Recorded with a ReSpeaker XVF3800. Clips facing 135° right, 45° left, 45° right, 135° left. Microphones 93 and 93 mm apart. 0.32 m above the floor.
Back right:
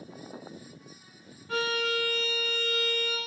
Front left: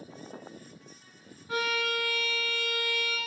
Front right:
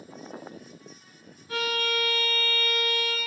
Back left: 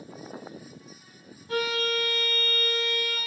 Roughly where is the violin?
Behind left.